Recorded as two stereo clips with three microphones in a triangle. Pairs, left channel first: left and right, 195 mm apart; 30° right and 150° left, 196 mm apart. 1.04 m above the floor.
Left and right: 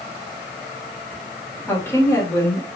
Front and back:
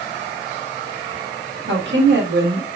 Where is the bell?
No bell in this recording.